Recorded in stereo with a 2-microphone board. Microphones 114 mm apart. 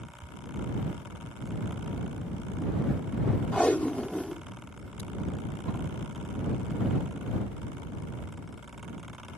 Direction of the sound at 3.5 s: 10° left (ahead or behind).